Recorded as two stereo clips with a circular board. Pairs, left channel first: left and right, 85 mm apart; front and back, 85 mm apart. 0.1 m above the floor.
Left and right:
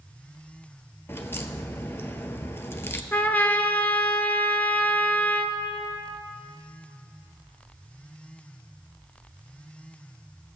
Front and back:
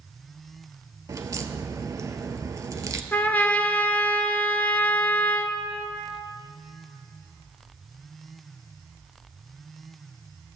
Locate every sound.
1.1 s a crack: 145° left, 0.7 m
3.1 s a trumpet: 45° left, 0.6 m